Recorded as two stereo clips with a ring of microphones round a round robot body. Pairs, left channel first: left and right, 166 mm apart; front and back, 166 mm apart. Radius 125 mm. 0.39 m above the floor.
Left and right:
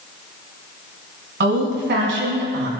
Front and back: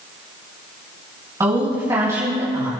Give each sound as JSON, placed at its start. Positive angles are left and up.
{"t": 1.4, "sound": "a woman speaking", "azimuth_deg": -105, "distance_m": 5.0}